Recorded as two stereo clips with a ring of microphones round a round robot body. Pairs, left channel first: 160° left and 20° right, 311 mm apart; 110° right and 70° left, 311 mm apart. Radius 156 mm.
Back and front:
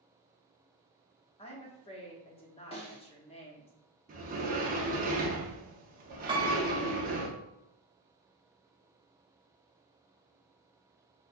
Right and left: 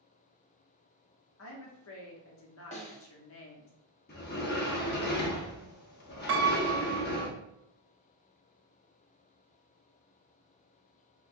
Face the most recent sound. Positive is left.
turn(degrees=45)